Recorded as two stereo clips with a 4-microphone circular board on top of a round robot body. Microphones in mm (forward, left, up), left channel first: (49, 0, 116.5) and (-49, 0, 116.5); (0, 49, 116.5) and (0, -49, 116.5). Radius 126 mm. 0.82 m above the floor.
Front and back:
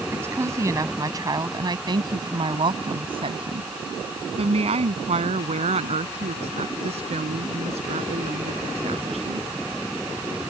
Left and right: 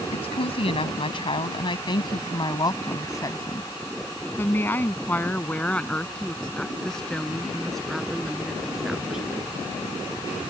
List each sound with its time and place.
0.1 s a woman speaking: 115° left; by 9.5 s 175° right